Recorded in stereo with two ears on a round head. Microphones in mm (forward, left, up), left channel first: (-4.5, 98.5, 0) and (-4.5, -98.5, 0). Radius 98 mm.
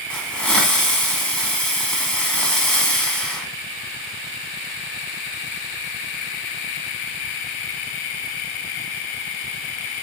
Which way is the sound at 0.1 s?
5° left (ahead or behind).